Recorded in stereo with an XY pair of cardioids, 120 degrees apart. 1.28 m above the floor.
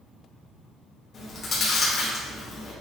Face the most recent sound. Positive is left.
turn(degrees=45)